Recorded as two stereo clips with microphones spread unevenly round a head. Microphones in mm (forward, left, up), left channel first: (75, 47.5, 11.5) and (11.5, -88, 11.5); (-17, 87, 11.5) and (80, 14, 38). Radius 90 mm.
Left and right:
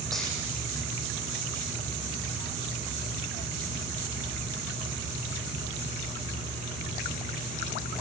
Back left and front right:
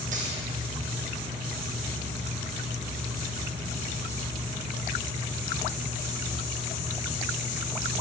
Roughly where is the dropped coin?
Ahead.